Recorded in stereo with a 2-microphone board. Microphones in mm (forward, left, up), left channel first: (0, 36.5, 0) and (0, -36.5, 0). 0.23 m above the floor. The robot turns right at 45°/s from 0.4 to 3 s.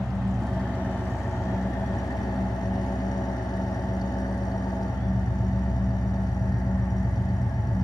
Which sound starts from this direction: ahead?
An engine running, at 0.0 s.